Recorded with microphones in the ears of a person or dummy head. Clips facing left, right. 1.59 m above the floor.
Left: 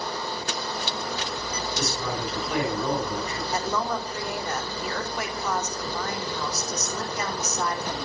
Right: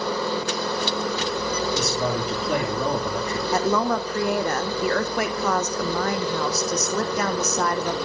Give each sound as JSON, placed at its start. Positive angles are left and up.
{"t": 0.0, "sound": "a machine running", "side_deg": -60, "distance_m": 1.3}
{"t": 1.8, "sound": "a man speaking", "side_deg": -45, "distance_m": 9.0}
{"t": 3.5, "sound": "a woman speaking", "side_deg": -55, "distance_m": 1.0}